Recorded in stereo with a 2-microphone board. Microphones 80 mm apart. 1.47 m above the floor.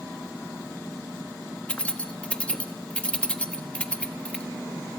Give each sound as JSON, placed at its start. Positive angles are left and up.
{"t": 1.7, "sound": "keys jangling", "side_deg": 15, "distance_m": 1.2}